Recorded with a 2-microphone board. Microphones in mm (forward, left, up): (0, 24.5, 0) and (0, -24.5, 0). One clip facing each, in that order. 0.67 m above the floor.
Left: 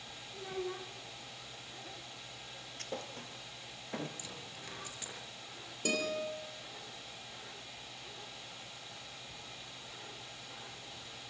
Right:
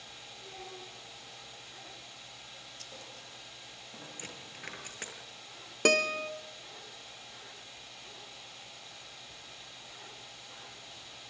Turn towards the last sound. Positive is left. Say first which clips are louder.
# right 8 dB
turn(degrees=-70)  # may be behind; listen again after turning